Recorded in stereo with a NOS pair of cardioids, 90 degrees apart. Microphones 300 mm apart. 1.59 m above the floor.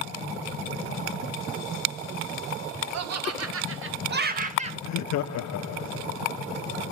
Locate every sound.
2.9 s laughter: 55° right, 2.5 m; by 4.7 s 20° right, 2 m
4.8 s laughter: 65° left, 0.7 m